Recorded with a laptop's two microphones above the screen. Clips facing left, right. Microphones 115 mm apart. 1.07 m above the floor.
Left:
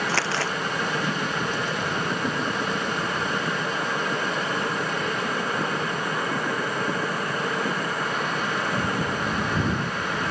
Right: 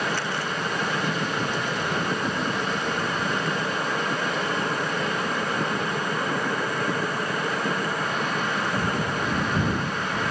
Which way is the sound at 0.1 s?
85° left.